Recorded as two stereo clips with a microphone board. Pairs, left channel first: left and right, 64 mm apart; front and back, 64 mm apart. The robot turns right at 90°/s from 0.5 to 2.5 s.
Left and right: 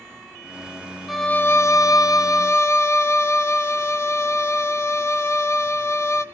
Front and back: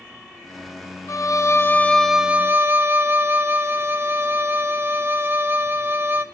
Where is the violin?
Straight ahead, 0.5 m; by 6.2 s 130° left, 0.5 m.